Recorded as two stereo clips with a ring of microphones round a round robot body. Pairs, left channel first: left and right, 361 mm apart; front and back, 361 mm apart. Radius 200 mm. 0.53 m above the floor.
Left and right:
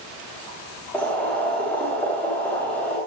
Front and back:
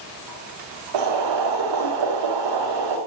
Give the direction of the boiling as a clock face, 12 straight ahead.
6 o'clock.